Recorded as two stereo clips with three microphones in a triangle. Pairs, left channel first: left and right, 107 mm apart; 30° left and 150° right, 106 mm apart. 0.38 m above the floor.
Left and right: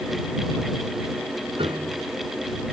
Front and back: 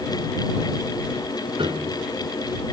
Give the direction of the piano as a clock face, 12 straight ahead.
4 o'clock.